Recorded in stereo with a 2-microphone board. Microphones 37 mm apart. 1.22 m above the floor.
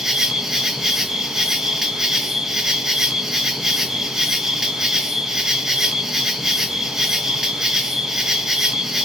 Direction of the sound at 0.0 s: 10° right (ahead or behind).